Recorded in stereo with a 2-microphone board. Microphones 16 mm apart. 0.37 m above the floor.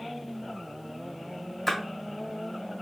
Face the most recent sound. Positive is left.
turn(degrees=15)  # may be behind; listen again after turning